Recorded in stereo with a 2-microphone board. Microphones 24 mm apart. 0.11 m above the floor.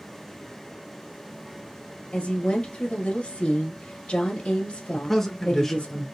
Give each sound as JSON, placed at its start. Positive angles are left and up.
{"t": 2.1, "sound": "a woman speaking", "side_deg": 50, "distance_m": 1.9}
{"t": 4.9, "sound": "a man speaking", "side_deg": 15, "distance_m": 1.1}